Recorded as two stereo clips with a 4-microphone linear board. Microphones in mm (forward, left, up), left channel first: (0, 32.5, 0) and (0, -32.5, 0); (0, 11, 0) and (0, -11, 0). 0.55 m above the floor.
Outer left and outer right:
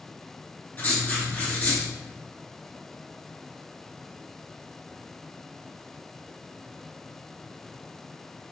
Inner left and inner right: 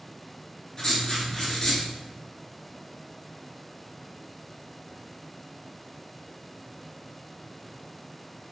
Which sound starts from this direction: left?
Writing, at 0.8 s.